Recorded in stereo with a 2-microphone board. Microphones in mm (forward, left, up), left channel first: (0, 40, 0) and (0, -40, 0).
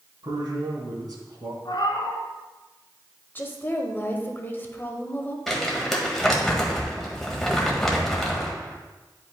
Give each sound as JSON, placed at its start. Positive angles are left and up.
{"t": 0.2, "sound": "a man speaking", "side_deg": -60, "distance_m": 2.5}
{"t": 1.6, "sound": "a cat meowing", "side_deg": 75, "distance_m": 1.3}
{"t": 3.4, "sound": "a woman speaking", "side_deg": 25, "distance_m": 1.0}
{"t": 5.5, "sound": "crumpling", "side_deg": 5, "distance_m": 1.5}